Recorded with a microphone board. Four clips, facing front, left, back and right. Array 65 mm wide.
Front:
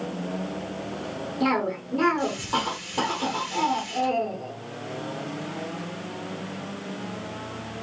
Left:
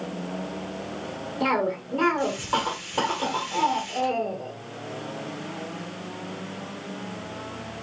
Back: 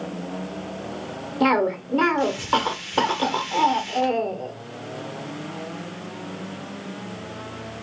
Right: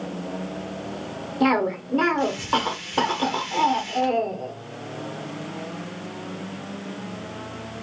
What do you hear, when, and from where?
1.4 s a cough: 155° right, 1.0 m